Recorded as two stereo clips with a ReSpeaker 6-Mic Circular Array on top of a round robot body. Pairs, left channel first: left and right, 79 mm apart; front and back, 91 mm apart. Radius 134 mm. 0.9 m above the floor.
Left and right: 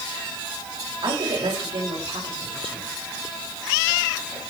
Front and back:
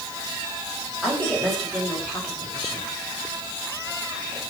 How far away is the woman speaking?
About 5 m.